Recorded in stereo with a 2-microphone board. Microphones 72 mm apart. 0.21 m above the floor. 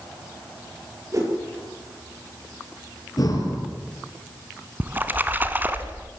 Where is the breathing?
55° left (ahead or behind), 5.5 m.